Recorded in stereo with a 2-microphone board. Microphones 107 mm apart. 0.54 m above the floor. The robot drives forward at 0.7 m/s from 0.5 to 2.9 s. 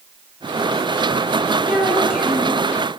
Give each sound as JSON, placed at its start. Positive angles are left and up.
{"t": 1.7, "sound": "a child speaking", "side_deg": -10, "distance_m": 8.0}